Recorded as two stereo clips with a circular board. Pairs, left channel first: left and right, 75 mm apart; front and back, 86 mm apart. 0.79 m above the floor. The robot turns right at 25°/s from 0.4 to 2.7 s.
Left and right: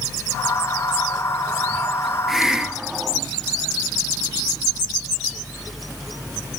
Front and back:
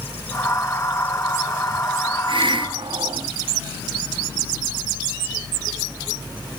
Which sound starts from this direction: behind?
A hiss, at 2.3 s.